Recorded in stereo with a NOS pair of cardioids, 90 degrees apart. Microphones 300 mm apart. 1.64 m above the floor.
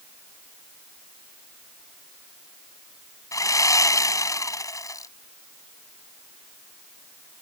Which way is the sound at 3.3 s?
10° left.